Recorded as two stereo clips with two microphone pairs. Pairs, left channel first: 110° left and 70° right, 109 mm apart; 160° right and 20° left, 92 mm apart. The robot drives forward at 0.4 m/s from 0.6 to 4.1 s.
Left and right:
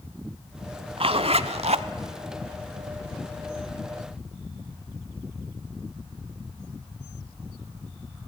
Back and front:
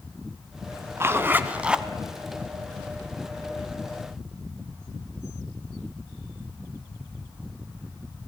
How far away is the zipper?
About 0.8 m.